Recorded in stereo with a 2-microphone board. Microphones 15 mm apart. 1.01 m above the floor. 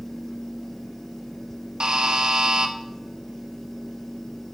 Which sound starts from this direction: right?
A buzzer, at 1.8 s.